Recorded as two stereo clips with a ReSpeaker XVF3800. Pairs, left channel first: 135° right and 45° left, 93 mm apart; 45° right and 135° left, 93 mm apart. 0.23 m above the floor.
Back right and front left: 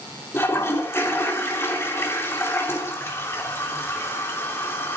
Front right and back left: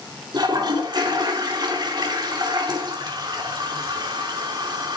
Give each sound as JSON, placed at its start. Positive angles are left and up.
{"t": 0.3, "sound": "a toilet flushing", "azimuth_deg": 165, "distance_m": 3.0}